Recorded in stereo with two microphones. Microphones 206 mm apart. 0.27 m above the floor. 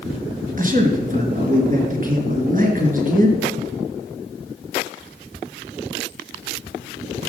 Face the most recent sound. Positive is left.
turn(degrees=-40)  # may be behind; listen again after turning